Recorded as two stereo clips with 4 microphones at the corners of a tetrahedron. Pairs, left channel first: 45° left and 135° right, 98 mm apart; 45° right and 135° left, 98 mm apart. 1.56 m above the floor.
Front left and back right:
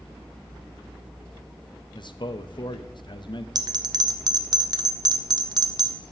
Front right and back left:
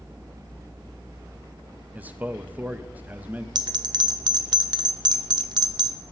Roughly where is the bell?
Behind.